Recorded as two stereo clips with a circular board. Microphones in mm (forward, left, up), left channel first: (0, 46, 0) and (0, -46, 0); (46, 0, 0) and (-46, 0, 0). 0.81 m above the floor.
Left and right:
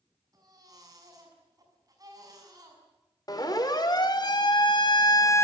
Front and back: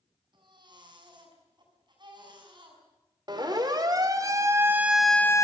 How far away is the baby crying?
About 6 m.